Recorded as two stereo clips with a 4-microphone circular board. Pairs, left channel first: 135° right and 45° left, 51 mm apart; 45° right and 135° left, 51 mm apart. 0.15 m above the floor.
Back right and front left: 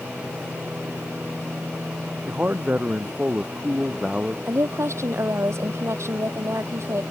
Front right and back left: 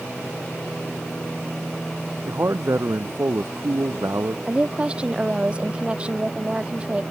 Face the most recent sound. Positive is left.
turn(degrees=65)